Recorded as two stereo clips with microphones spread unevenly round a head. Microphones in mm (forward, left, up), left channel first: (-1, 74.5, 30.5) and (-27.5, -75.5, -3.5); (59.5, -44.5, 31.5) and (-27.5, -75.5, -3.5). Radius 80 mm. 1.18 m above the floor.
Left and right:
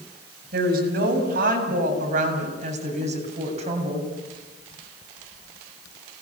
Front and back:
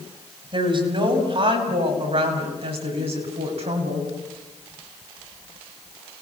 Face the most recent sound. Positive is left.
turn(degrees=-155)